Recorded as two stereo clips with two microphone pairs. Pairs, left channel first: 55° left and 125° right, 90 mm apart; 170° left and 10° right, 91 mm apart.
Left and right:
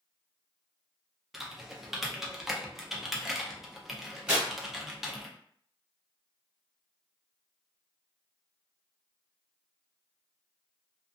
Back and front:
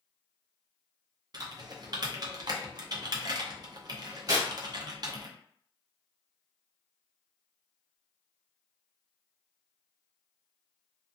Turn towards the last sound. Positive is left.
turn(degrees=-45)